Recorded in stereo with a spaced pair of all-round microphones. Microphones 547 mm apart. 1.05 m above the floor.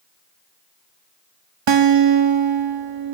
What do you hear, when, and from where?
1.7 s a guitar: 55° right (ahead or behind), 0.6 m